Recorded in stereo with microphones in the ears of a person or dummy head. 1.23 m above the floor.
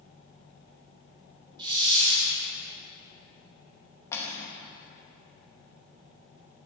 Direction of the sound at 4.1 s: 15° left (ahead or behind).